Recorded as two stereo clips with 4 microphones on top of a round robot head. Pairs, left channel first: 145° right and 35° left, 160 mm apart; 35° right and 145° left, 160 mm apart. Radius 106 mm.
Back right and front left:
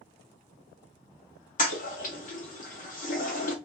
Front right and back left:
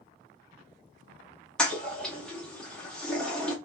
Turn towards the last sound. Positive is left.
turn(degrees=-115)